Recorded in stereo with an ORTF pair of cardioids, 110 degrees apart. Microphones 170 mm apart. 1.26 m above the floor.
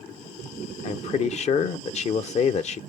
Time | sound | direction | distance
0.8 | a man speaking | 40° left | 0.5 m